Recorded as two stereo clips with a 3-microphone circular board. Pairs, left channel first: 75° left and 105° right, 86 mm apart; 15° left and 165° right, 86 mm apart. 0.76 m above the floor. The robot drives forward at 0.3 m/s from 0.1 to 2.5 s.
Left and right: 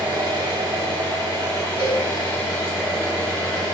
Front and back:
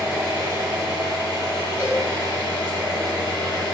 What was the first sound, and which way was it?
An engine running, 110° right.